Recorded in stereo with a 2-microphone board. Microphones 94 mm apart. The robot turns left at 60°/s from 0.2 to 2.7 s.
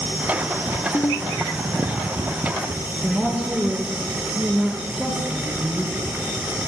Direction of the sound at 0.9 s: 30° left (ahead or behind).